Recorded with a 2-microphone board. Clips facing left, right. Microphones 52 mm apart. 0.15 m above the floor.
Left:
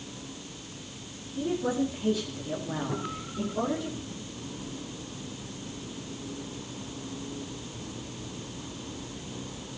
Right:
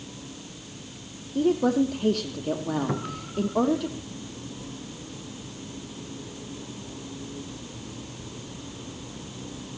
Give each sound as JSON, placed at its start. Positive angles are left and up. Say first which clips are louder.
{"t": 1.4, "sound": "a woman speaking", "louder": "right 7 dB", "side_deg": -60, "distance_m": 5.0}
{"t": 2.9, "sound": "a cupboard door", "louder": "right 3 dB", "side_deg": -80, "distance_m": 4.0}